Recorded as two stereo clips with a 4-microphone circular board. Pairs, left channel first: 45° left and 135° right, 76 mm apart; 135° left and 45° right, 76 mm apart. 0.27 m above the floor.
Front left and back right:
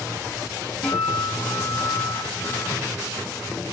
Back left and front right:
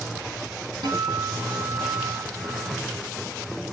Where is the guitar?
35° right, 2.5 m.